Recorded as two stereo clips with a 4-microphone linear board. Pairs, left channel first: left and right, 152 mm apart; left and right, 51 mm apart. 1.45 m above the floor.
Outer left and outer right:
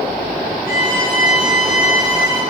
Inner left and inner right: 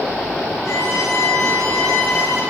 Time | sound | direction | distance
0.7 | a violin | 55° left (ahead or behind) | 4 m